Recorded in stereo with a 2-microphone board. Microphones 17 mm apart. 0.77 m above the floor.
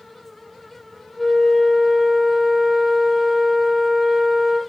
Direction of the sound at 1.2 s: 20° right (ahead or behind).